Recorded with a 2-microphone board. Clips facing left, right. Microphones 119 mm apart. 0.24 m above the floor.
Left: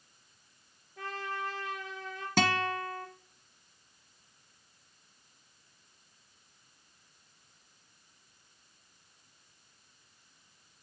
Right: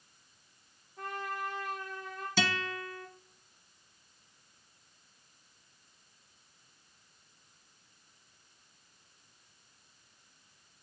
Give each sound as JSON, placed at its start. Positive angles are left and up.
{"t": 1.0, "sound": "a trumpet", "side_deg": 75, "distance_m": 4.0}
{"t": 2.4, "sound": "a guitar", "side_deg": 55, "distance_m": 1.2}